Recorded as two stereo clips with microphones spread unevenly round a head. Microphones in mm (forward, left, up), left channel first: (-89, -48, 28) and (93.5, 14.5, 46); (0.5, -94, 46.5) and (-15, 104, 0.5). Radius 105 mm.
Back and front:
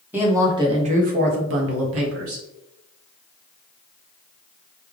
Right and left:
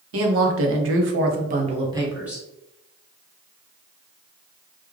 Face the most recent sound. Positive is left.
turn(degrees=10)